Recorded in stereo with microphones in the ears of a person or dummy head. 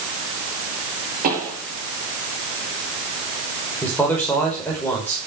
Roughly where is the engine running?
No engine running in this recording.